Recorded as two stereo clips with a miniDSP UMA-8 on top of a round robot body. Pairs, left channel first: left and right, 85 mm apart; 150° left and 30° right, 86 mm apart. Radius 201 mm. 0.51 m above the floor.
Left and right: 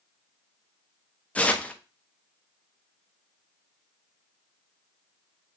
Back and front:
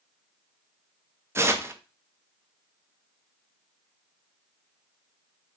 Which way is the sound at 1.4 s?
20° left.